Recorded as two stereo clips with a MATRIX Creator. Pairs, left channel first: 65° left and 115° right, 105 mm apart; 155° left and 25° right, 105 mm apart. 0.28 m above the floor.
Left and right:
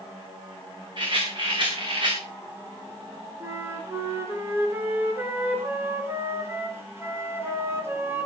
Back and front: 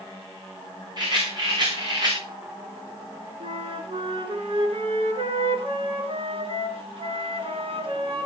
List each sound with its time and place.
1.0 s a rattle: 70° right, 7.5 m
3.4 s a flute: 45° right, 4 m